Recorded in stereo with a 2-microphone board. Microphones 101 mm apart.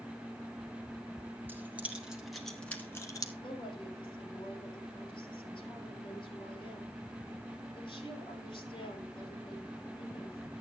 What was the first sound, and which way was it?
Keys jangling, 15° right (ahead or behind).